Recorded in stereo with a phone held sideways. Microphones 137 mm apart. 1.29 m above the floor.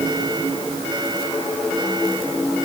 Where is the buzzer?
I don't hear a buzzer.